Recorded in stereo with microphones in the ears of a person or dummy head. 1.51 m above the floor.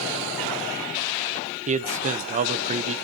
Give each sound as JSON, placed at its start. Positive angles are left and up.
{"t": 1.7, "sound": "a man speaking", "side_deg": -35, "distance_m": 0.8}